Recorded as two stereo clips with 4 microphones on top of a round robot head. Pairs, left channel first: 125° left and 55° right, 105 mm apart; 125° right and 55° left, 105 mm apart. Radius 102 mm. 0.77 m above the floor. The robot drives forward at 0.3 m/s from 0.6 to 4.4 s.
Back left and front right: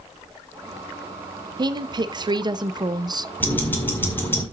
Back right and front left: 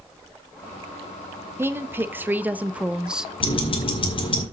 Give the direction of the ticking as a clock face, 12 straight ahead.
5 o'clock.